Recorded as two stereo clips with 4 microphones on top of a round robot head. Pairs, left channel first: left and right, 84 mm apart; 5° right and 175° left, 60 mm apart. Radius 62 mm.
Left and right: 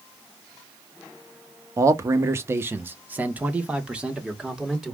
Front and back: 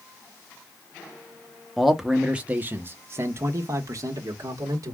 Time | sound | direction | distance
1.8 | a man speaking | 90° right | 1.0 m